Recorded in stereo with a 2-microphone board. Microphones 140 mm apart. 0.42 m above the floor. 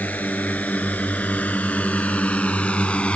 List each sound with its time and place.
0.0 s a drone: 10° left (ahead or behind)